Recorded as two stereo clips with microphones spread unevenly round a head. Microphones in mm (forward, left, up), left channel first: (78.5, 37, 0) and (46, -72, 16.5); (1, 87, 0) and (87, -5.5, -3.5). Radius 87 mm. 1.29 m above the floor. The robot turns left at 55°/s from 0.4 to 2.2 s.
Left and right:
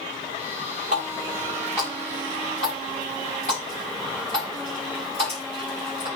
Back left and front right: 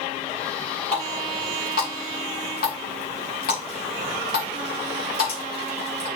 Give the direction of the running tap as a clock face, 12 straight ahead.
5 o'clock.